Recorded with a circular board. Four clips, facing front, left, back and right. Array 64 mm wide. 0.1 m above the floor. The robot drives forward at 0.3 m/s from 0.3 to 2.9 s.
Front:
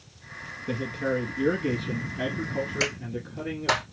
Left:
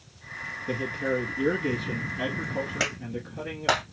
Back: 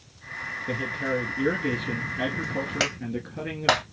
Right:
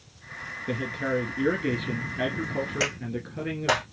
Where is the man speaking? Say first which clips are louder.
Even, front 1 dB; 100° right, 1.6 m; by 3.8 s 140° right, 1.8 m.